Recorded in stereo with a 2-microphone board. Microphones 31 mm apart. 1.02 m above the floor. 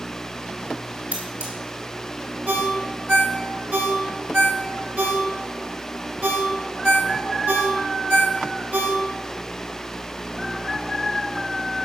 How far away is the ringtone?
About 2 m.